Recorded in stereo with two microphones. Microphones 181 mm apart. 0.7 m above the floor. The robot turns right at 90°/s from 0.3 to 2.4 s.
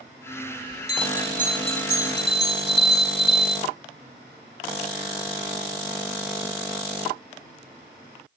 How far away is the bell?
About 1.9 m.